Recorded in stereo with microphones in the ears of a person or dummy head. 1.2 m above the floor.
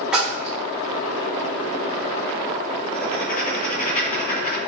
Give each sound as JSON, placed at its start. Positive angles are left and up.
{"t": 0.1, "sound": "a splash", "side_deg": -5, "distance_m": 1.2}
{"t": 2.9, "sound": "writing", "side_deg": 45, "distance_m": 1.3}